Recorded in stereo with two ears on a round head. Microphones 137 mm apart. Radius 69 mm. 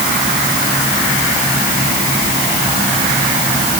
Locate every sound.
Only background noise.